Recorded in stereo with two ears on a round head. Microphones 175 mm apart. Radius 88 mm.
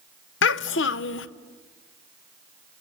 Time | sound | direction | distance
0.4 | a child speaking | 65° left (ahead or behind) | 0.9 m